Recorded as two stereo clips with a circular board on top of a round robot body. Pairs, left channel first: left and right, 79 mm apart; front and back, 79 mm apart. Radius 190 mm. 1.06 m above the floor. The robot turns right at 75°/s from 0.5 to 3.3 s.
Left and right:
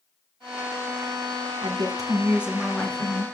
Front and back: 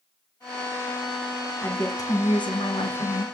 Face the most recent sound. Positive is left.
turn(degrees=55)